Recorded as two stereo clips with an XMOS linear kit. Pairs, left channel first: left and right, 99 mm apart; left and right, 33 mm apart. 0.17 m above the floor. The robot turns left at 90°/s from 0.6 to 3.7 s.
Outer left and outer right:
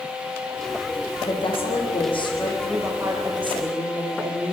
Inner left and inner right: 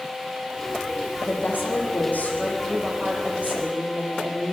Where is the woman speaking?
145° left, 6.5 m; by 4.5 s 80° right, 6.5 m.